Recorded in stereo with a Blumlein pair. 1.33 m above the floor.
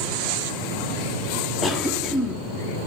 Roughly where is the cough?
Ahead.